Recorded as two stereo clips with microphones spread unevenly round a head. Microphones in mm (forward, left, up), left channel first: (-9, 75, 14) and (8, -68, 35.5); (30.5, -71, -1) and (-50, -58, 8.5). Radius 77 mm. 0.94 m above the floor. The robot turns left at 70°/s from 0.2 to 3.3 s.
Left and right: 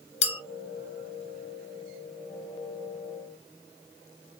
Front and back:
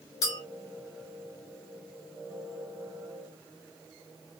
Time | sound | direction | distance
0.2 | a clink | 55° left | 0.8 m